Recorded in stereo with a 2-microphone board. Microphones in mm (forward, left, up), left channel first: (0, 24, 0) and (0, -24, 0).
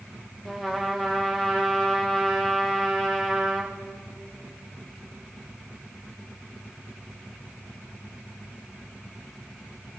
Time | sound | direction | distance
0.5 | a trumpet | 10° left (ahead or behind) | 3.5 m